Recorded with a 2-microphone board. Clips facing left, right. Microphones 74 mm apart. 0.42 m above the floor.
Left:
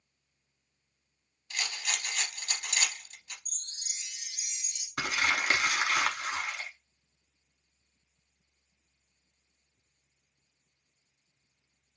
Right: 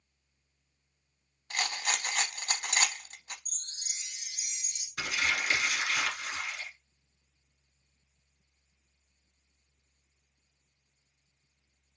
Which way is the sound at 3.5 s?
50° right (ahead or behind).